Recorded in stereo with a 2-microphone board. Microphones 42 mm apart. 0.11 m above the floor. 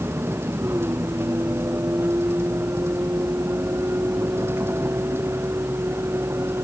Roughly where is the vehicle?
Right.